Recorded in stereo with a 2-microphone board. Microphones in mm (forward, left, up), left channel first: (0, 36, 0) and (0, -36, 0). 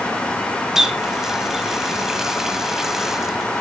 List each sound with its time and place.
0.8 s a running tap: 10° right (ahead or behind), 0.9 m